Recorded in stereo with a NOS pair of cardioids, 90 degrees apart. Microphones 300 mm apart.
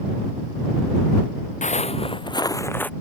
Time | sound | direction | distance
1.6 | footsteps | 25° left | ?